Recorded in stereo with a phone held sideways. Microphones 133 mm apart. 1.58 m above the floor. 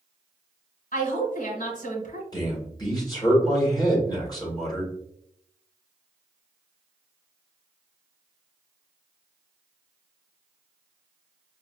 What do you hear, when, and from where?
0.9 s a woman speaking: 80° left, 1.5 m
2.3 s a man speaking: 30° left (ahead or behind), 1.7 m